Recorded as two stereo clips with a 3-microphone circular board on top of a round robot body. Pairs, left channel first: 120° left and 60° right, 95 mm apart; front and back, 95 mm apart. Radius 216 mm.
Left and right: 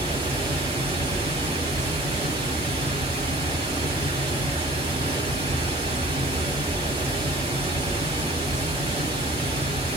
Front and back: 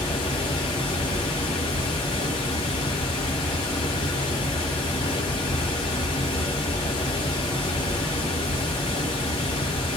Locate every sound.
0.0 s running water: 40° right, 1.1 m